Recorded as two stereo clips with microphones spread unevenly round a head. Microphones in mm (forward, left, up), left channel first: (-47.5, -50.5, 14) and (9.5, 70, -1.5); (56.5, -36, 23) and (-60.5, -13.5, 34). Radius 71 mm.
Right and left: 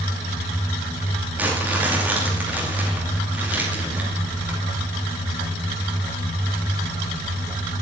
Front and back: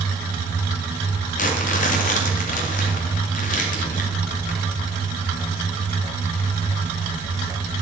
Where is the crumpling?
15° right, 2.5 m.